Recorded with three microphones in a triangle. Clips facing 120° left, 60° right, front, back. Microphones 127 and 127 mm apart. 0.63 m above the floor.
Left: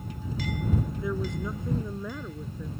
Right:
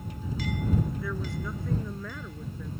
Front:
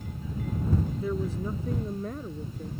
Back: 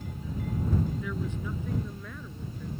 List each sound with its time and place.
1.0 s a woman speaking: 50° left; by 2.7 s 45° left